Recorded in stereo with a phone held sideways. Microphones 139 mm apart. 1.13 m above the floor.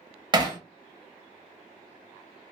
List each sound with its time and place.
0.3 s hammering: 30° right (ahead or behind), 0.6 m